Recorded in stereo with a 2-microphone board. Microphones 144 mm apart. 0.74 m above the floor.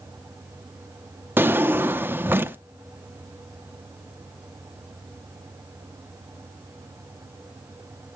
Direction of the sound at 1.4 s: 15° right (ahead or behind).